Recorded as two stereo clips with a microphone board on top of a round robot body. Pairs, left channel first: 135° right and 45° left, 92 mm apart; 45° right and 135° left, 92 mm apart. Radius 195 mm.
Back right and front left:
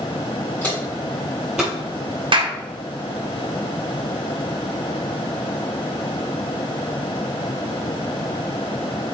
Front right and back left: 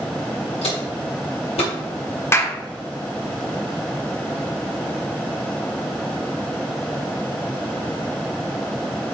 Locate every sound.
0.6 s footsteps: 65° right, 1.8 m; by 1.7 s 35° right, 1.5 m
2.3 s a clap: 20° left, 1.2 m